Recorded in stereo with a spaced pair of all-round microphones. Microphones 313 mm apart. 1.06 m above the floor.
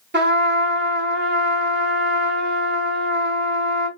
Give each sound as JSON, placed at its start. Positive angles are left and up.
{"t": 0.1, "sound": "a trumpet", "side_deg": -35, "distance_m": 0.8}